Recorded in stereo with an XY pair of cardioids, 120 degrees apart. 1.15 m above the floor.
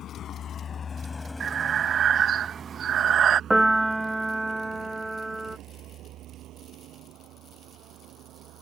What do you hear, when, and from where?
0.0 s a vehicle: 60° left; by 8.6 s 75° right
1.4 s breathing: 50° right
3.5 s a piano: 10° right